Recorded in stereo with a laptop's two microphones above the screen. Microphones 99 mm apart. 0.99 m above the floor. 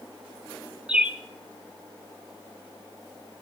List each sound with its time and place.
0.9 s a bird: 10° right (ahead or behind), 0.8 m